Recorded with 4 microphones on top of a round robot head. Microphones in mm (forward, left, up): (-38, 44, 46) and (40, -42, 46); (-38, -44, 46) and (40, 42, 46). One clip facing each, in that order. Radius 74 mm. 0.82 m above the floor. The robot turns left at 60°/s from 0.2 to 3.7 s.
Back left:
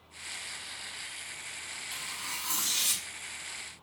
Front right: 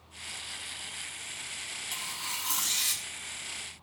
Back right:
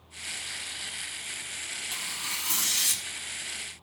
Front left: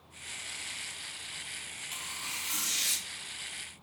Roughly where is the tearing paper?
Right.